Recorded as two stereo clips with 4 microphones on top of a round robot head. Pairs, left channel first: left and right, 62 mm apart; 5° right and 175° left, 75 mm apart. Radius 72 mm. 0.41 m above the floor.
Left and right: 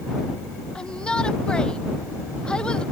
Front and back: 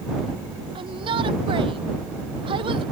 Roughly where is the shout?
Behind.